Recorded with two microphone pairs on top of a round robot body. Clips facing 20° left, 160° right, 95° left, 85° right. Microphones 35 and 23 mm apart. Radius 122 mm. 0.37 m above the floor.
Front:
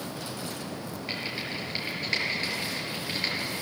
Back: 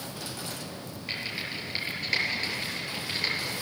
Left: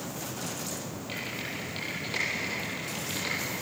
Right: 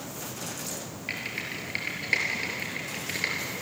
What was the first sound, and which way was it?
Typing on a keyboard, 70° right.